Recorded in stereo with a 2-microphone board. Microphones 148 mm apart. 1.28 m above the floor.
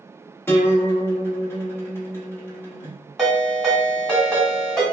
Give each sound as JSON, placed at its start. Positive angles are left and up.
{"t": 0.5, "sound": "a guitar", "side_deg": 15, "distance_m": 0.9}
{"t": 3.2, "sound": "a ringtone", "side_deg": 0, "distance_m": 1.2}